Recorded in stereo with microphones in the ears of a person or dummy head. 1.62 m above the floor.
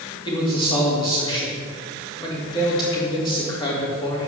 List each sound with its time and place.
0.2 s a man speaking: 25° left (ahead or behind), 3 m